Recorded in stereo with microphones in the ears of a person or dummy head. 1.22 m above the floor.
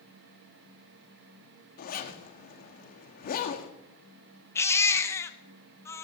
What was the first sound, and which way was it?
A zipper, 45° left (ahead or behind).